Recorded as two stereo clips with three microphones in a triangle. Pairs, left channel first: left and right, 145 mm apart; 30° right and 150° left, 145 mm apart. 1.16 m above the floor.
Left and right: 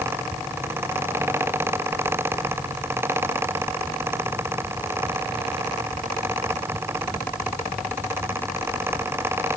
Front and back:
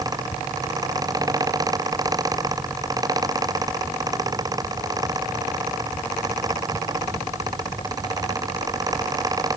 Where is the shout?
No shout in this recording.